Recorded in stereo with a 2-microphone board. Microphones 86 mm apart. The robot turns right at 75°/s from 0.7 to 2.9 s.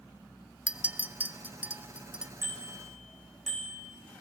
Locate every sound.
0.7 s a clink: 10° right (ahead or behind), 0.9 m
2.4 s a bicycle bell: 35° right, 5 m; by 3.9 s 5° left, 5 m